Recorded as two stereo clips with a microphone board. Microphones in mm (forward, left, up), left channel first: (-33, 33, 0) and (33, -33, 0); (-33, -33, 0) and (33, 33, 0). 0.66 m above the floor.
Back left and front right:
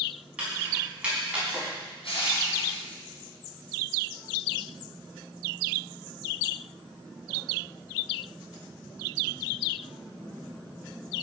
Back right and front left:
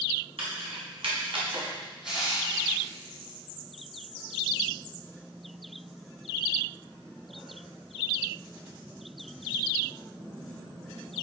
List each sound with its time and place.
0.4 s keys jangling: 35° left, 4.5 m
2.0 s crushing: 130° left, 4 m